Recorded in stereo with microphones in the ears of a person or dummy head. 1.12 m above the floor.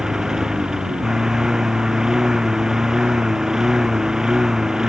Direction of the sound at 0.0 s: Centre (ahead or behind).